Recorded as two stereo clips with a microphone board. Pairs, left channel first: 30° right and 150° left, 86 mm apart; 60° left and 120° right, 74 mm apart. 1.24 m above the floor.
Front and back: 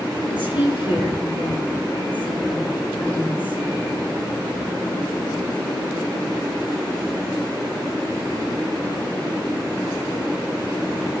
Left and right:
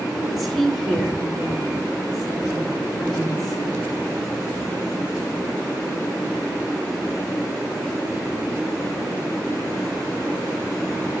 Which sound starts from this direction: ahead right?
A woman speaking, at 0.3 s.